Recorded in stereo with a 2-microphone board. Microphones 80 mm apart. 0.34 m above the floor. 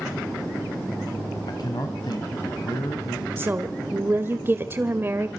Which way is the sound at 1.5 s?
60° left (ahead or behind).